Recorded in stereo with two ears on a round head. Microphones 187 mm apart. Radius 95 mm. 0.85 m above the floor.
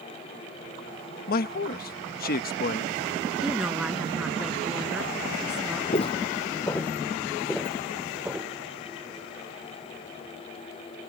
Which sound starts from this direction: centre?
A woman speaking, at 3.4 s.